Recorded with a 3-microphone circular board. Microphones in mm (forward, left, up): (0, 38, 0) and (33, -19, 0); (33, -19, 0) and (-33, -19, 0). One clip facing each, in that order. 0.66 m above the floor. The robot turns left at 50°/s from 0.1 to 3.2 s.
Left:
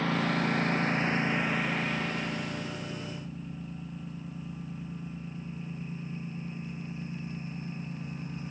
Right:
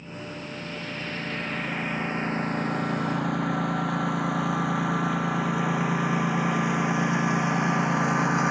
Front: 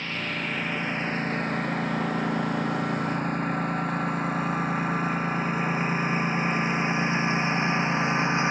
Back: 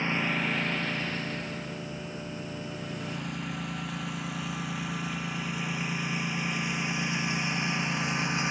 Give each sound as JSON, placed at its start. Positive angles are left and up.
{"t": 0.0, "sound": "a lawn mower", "azimuth_deg": 110}